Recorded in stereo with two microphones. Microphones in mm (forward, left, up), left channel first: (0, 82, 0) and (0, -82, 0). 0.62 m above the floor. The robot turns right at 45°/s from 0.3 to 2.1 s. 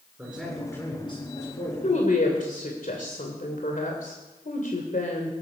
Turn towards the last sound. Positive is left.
turn(degrees=55)  # may be behind; listen again after turning